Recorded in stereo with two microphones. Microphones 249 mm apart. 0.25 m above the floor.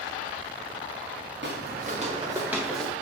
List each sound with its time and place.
1.4 s footsteps: 45° right (ahead or behind), 1.7 m; by 2.9 s 5° left (ahead or behind), 1.8 m